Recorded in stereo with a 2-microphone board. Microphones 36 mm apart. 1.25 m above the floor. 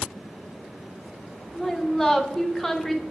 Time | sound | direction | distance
1.6 | a woman speaking | 10° left (ahead or behind) | 0.9 m